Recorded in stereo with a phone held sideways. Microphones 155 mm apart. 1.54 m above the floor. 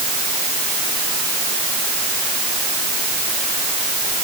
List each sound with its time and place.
Only background noise.